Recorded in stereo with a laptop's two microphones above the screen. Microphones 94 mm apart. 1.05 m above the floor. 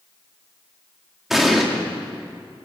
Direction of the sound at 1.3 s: 5° right (ahead or behind).